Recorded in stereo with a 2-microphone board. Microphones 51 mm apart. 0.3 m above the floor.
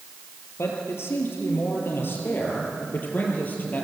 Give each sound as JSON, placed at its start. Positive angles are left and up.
{"t": 0.6, "sound": "a man speaking", "side_deg": 60, "distance_m": 6.0}